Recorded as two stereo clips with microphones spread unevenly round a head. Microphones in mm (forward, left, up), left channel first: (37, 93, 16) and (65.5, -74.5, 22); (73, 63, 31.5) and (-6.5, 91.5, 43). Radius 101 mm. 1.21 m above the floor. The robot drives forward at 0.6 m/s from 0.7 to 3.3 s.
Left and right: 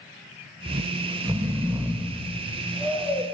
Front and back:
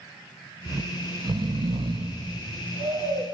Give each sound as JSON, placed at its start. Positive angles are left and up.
{"t": 0.7, "sound": "snoring", "azimuth_deg": -135, "distance_m": 0.6}